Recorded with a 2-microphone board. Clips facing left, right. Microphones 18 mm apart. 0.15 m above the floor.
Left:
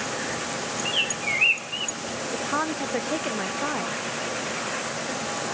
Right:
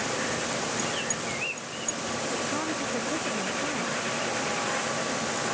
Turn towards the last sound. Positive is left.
turn(degrees=45)  # may be behind; listen again after turning